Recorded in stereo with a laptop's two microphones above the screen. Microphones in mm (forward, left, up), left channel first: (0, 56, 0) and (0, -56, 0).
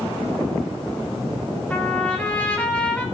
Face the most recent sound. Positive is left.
turn(degrees=10)  # may be behind; listen again after turning